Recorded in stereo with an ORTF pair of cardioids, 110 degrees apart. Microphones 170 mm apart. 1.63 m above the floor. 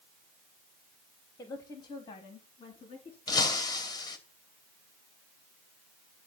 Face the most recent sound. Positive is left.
turn(degrees=25)